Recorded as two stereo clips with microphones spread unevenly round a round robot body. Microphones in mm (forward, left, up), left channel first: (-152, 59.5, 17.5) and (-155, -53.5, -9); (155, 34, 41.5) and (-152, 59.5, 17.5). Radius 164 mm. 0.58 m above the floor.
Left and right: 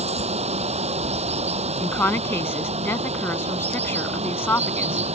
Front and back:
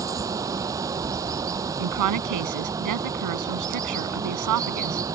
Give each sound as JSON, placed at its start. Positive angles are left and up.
{"t": 0.0, "sound": "running water", "azimuth_deg": -105}
{"t": 1.8, "sound": "a woman speaking", "azimuth_deg": 155}